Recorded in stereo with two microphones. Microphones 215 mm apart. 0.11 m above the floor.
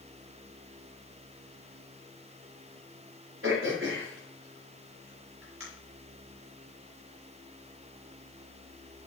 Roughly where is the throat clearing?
Right.